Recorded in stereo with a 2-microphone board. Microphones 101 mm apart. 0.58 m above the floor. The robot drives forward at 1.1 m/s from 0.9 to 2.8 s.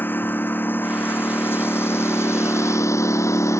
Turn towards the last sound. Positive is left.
turn(degrees=30)  # may be behind; listen again after turning